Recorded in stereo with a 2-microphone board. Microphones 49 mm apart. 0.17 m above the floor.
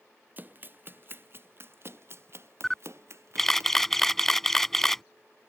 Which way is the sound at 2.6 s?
5° left (ahead or behind).